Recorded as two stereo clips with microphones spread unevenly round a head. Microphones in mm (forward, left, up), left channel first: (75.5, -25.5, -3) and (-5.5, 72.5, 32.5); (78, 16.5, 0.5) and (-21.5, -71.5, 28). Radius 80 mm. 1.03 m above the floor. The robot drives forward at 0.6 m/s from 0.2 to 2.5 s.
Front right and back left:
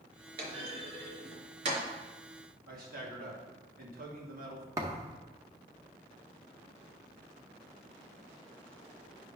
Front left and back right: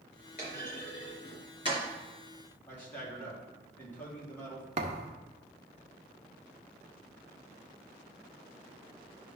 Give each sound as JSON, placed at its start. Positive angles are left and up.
{"t": 0.4, "sound": "a clunk", "azimuth_deg": 90, "distance_m": 3.5}
{"t": 2.7, "sound": "a man speaking", "azimuth_deg": 115, "distance_m": 2.5}
{"t": 4.8, "sound": "a thud", "azimuth_deg": -170, "distance_m": 0.7}